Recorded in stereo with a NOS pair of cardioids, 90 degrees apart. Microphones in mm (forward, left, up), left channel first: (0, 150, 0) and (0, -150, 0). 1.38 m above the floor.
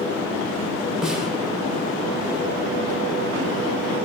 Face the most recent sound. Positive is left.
turn(degrees=0)